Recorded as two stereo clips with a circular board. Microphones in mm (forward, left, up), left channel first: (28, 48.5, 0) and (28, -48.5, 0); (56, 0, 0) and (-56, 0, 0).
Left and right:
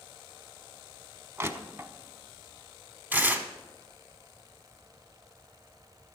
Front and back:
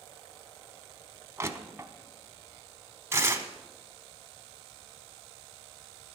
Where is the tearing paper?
145° right, 1.0 m.